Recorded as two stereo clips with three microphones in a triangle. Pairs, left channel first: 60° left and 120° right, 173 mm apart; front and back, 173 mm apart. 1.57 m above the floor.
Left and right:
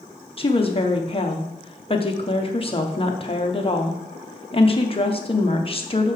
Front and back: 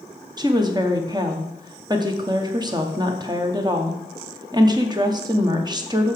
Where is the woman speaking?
115° left, 1.1 m.